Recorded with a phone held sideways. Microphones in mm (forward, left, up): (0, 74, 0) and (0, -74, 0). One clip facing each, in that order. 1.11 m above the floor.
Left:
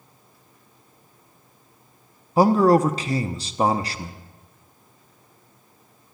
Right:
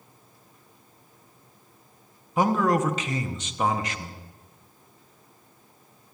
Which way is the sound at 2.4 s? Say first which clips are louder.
Left 6 dB; 35° left (ahead or behind).